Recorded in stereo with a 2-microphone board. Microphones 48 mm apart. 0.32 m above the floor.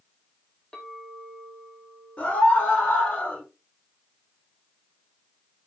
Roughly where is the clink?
Centre.